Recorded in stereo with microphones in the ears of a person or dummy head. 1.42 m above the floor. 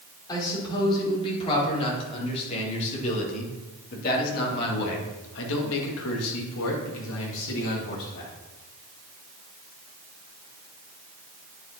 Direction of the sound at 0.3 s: 20° left (ahead or behind).